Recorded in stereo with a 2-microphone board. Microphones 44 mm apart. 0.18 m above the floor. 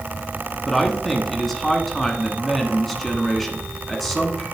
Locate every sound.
0.7 s a man speaking: 5° left (ahead or behind), 1.3 m